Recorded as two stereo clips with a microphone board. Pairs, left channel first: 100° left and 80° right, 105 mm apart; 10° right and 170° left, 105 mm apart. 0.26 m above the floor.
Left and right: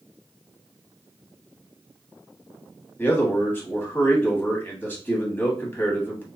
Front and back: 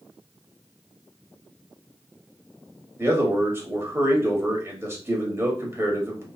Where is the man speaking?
140° left, 1.1 m.